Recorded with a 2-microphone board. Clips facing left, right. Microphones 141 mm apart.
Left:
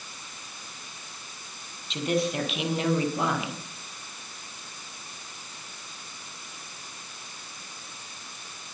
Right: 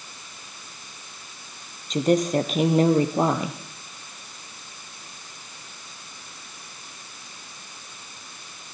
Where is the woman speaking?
45° right (ahead or behind), 4 m.